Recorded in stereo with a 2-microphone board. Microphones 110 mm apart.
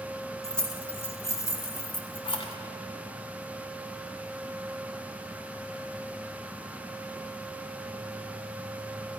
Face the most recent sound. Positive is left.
turn(degrees=55)  # may be behind; listen again after turning